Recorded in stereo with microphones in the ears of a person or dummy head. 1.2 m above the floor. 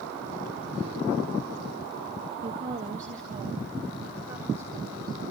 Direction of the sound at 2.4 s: 25° right (ahead or behind).